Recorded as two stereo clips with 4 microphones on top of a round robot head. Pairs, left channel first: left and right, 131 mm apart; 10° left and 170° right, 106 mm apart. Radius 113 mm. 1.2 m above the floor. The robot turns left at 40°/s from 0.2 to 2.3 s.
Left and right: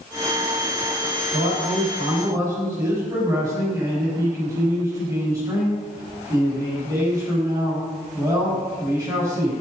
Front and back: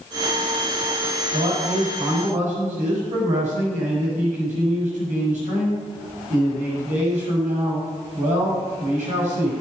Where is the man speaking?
120° right, 7 m; by 9.5 s 160° right, 7 m.